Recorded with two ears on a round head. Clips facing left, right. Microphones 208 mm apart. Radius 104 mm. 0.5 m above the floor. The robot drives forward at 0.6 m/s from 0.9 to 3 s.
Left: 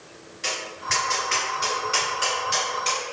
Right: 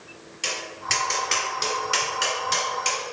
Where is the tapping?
40° right (ahead or behind), 2.0 m; by 3.0 s 45° right (ahead or behind), 1.9 m.